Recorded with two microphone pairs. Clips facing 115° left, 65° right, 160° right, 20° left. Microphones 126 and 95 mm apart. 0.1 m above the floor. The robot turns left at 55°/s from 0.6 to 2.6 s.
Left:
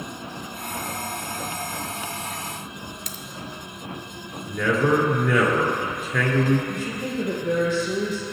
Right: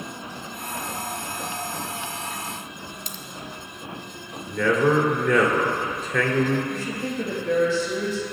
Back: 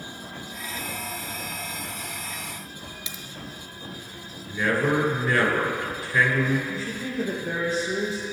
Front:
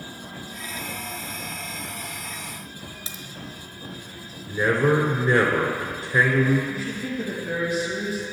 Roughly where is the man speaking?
Ahead left.